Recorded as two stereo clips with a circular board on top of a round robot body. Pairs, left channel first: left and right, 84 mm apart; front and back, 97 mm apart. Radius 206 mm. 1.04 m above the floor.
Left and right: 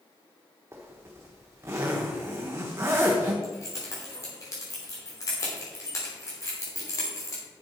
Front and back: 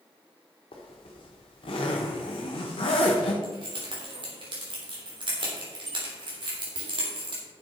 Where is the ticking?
No ticking in this recording.